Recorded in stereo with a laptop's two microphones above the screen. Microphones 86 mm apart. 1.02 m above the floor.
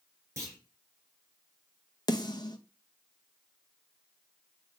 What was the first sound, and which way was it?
A clunk, 30° right (ahead or behind).